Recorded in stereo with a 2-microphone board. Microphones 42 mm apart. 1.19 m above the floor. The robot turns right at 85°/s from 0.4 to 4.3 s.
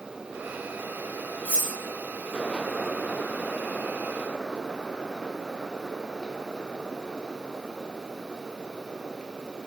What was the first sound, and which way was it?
Cutlery clinking, 45° right (ahead or behind).